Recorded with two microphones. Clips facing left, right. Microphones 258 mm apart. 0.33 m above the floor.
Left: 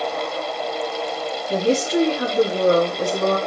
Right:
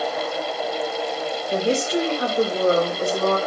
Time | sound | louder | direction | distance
1.5 | a woman speaking | left 3 dB | 50° left (ahead or behind) | 2 m